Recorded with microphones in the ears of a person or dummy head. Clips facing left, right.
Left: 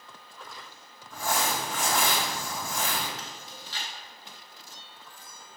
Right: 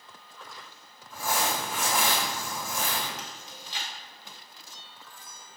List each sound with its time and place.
1.1 s crumpling: 10° right (ahead or behind), 2.5 m
3.2 s chewing: 20° right (ahead or behind), 1.2 m